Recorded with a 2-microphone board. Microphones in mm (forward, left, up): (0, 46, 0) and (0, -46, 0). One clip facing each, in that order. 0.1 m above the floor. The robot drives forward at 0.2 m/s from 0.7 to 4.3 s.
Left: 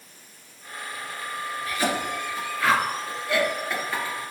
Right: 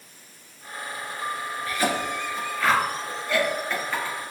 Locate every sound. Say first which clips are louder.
1.7 s a cough: right 1 dB; 10° left (ahead or behind), 1.2 m